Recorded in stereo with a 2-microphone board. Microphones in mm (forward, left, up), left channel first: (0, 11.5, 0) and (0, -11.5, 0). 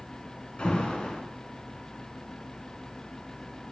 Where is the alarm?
45° left (ahead or behind), 3 m.